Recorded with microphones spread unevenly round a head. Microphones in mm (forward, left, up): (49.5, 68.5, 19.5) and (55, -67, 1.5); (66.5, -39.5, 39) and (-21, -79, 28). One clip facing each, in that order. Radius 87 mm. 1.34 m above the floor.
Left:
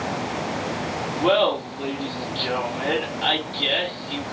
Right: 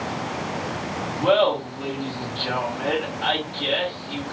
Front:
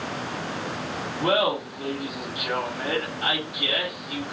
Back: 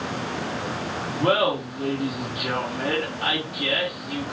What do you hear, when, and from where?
1.2 s laughter: 150° left, 1.5 m